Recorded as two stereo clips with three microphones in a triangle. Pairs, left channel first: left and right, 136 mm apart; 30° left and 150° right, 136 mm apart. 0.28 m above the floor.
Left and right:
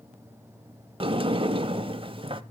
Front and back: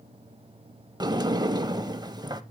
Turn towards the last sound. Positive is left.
turn(degrees=-110)